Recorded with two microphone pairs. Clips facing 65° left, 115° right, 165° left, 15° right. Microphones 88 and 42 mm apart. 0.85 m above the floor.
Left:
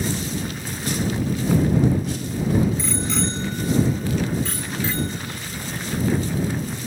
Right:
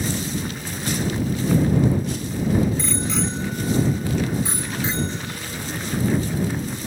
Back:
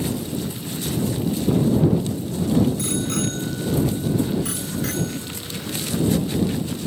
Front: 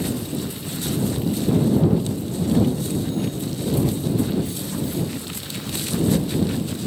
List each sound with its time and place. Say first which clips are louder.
2.8 s a bicycle bell: even, even; 150° left; by 6.0 s straight behind